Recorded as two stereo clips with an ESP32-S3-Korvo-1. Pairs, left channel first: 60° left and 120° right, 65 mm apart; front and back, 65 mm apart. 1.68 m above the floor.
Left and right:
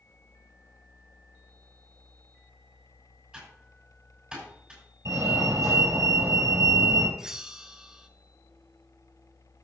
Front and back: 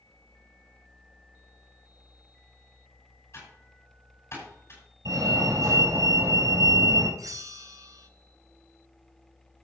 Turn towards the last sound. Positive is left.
turn(degrees=160)